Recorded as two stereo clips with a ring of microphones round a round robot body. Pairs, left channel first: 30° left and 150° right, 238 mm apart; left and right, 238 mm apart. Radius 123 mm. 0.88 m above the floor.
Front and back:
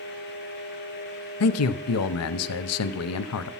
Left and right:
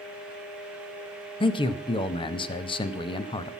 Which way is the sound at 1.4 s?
20° left.